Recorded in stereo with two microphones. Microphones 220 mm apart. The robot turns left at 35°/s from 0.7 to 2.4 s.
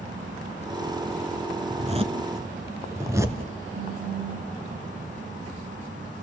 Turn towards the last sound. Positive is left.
turn(degrees=-25)  # may be behind; listen again after turning